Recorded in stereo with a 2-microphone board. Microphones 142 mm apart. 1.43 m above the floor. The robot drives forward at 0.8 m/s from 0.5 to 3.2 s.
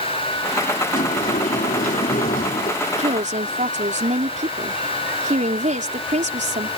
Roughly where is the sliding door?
Left.